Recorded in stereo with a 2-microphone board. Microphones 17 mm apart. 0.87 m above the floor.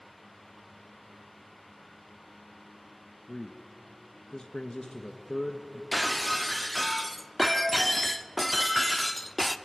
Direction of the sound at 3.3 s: 35° left (ahead or behind).